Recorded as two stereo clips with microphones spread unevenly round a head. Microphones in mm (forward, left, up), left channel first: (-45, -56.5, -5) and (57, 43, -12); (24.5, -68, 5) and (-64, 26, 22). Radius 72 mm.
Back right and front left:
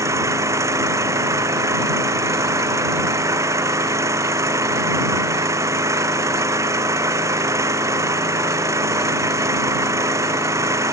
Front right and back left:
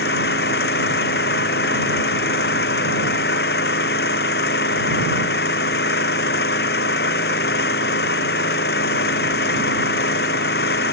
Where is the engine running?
25° right.